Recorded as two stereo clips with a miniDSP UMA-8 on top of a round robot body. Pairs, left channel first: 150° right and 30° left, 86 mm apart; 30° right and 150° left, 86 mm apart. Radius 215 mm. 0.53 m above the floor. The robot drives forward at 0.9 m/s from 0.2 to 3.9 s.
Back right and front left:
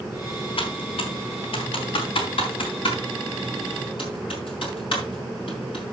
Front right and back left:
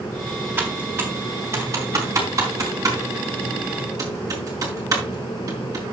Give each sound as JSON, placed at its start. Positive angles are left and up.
{"t": 0.6, "sound": "typing on a keyboard", "azimuth_deg": -140, "distance_m": 3.0}